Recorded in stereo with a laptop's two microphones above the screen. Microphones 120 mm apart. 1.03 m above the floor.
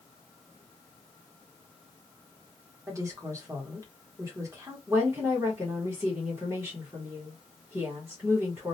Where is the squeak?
No squeak in this recording.